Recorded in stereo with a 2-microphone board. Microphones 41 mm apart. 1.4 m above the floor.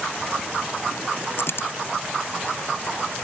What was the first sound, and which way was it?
A dropped coin, 70° left (ahead or behind).